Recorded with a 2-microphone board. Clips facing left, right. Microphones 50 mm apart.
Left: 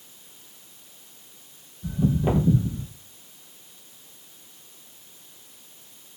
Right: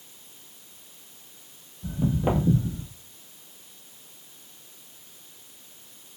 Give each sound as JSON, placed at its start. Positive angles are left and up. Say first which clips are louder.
{"t": 1.8, "sound": "footsteps", "louder": "left 2 dB", "side_deg": -15, "distance_m": 1.0}